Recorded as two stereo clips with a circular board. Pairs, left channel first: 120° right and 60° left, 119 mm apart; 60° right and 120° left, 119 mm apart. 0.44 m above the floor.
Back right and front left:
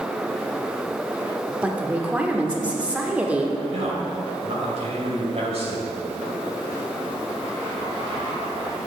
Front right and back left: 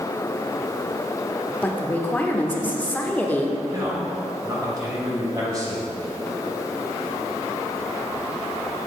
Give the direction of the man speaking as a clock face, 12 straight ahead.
10 o'clock.